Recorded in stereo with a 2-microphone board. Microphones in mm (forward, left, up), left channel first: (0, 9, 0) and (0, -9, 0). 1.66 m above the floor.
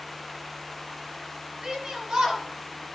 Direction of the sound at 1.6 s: 50° right (ahead or behind).